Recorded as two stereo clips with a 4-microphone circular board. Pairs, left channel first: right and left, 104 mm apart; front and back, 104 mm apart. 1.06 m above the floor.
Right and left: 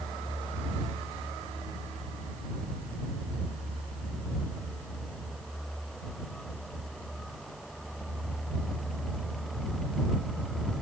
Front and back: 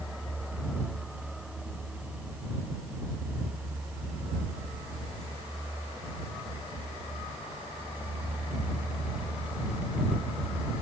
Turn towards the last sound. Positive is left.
No sound to turn to.